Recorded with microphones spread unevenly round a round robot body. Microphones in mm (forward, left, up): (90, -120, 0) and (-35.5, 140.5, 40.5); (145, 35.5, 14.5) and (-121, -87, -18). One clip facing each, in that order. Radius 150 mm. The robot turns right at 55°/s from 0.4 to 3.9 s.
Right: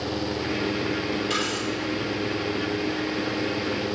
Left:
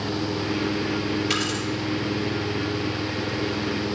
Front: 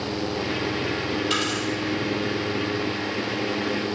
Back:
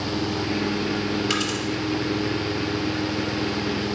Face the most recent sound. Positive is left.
turn(degrees=-50)